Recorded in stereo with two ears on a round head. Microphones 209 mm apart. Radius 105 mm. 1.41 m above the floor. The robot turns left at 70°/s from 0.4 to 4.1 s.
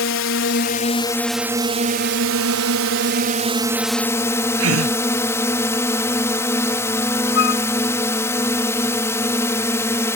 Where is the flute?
55° left (ahead or behind).